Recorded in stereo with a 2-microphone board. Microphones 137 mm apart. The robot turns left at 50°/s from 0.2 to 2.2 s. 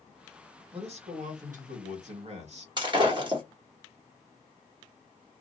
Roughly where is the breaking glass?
Right.